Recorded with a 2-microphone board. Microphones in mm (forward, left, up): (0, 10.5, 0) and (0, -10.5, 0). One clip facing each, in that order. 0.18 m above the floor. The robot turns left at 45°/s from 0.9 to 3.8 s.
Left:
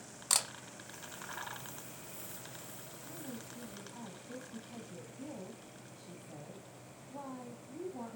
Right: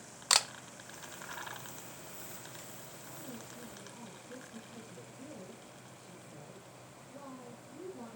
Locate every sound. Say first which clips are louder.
0.3 s a camera shutter: right 5 dB; 30° right (ahead or behind), 0.7 m
3.0 s a woman speaking: left 2 dB; 160° left, 7 m; by 8.2 s 125° left, 7 m